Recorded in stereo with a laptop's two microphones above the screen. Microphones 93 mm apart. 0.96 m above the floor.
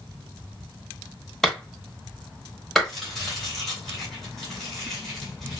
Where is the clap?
Centre (ahead or behind), 1.4 m.